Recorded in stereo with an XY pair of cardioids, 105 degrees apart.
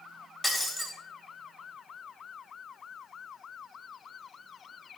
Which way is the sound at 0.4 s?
25° left.